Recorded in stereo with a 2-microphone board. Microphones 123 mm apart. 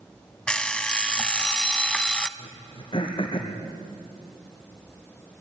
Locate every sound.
0.5 s an alarm clock: 5° left (ahead or behind), 0.6 m
2.4 s throat clearing: 40° left (ahead or behind), 2.5 m